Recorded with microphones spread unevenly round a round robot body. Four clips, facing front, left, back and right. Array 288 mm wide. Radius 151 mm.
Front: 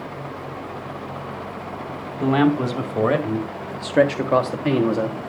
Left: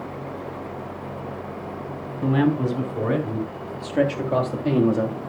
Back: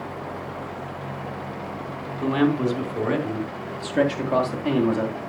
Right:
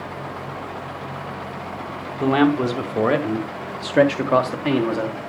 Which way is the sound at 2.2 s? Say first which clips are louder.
Right 3 dB, front 3 dB; 55° right.